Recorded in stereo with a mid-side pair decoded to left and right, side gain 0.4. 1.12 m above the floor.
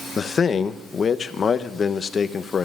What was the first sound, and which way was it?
A man speaking, 50° left.